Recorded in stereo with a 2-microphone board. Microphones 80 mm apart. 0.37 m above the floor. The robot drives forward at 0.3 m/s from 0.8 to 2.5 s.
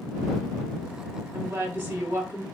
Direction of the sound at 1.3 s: 30° right (ahead or behind).